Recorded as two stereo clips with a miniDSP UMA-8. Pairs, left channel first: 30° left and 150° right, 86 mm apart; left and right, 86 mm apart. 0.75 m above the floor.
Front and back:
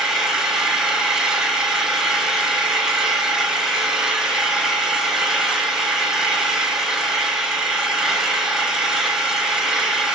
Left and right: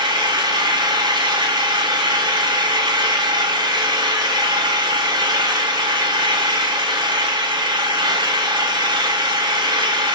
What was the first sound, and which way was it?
An engine running, 65° right.